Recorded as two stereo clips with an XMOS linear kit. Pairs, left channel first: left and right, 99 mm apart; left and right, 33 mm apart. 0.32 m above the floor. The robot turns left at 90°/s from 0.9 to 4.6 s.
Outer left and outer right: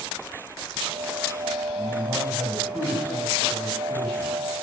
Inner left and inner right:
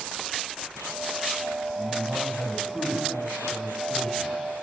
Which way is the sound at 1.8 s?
115° right.